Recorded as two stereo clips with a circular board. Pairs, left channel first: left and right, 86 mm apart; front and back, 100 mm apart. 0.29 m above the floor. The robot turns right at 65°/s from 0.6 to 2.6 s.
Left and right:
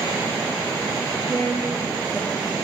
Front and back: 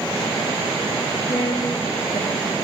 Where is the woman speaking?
30° right, 5.5 m; by 2.5 s 50° left, 5.5 m.